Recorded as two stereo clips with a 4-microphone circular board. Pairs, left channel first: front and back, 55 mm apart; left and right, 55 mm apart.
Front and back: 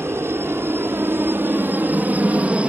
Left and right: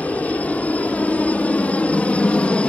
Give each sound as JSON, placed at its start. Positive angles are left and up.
{"t": 0.0, "sound": "a helicopter", "azimuth_deg": 150}